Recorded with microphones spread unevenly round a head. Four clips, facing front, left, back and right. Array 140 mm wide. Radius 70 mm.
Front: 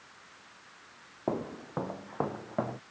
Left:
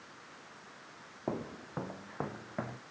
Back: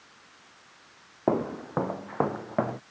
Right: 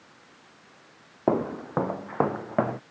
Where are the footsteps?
120° right; by 2.8 s 110° right.